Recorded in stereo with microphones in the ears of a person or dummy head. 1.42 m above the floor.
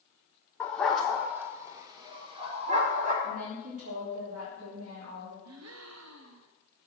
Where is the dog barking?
5° left (ahead or behind), 1.3 m; by 3.1 s 40° right (ahead or behind), 1.7 m.